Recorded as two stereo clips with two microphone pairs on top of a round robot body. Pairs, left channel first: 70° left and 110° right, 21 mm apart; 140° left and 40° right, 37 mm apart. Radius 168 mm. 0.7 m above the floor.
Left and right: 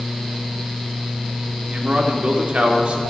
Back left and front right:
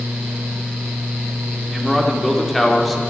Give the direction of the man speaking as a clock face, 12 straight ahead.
4 o'clock.